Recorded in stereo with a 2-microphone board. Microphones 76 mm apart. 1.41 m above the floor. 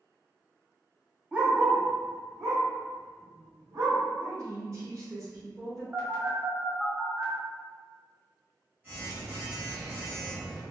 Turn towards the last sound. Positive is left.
turn(degrees=-25)  # may be behind; listen again after turning